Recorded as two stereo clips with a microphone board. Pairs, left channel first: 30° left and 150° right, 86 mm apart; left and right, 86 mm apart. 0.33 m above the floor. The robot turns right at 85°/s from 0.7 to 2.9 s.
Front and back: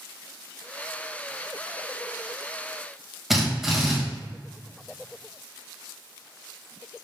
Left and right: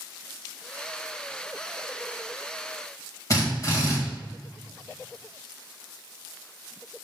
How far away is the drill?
About 1.6 m.